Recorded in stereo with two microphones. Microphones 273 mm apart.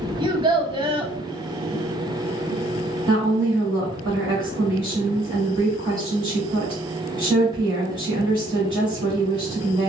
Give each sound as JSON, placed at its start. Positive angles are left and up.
{"t": 0.2, "sound": "a child speaking", "side_deg": -20, "distance_m": 0.6}
{"t": 3.1, "sound": "a woman speaking", "side_deg": -15, "distance_m": 1.4}